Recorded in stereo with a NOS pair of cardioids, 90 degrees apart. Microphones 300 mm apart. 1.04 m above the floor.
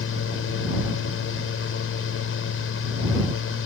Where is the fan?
50° left.